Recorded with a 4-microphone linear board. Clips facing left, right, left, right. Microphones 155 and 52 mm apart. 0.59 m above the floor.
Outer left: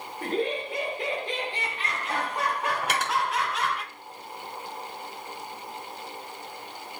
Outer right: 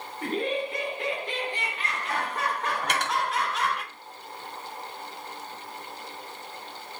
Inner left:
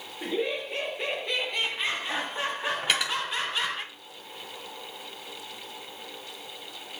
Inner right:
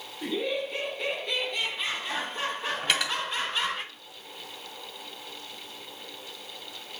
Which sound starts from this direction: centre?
Cutlery clinking, at 2.8 s.